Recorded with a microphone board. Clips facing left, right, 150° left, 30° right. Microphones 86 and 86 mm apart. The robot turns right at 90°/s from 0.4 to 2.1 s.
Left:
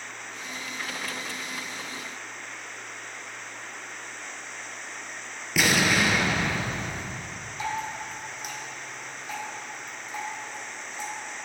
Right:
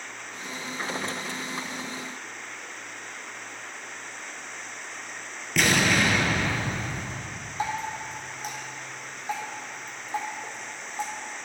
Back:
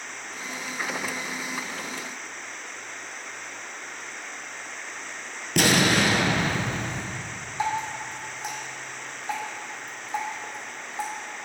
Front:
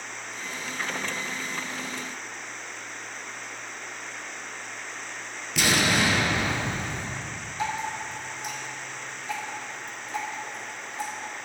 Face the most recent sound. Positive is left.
turn(degrees=-145)